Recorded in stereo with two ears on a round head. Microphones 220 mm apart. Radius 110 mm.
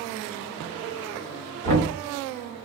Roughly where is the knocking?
Right.